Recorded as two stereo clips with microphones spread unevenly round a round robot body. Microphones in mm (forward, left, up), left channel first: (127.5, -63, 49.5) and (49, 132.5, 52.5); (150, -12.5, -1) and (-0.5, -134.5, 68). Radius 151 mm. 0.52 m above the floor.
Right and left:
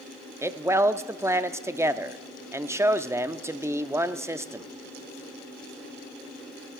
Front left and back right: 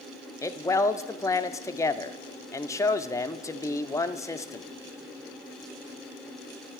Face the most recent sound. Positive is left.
turn(degrees=40)